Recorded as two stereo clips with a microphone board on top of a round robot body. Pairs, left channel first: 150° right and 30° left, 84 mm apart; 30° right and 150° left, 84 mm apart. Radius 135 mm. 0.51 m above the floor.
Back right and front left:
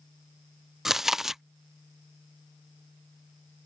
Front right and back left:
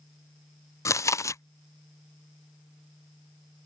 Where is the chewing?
55° right.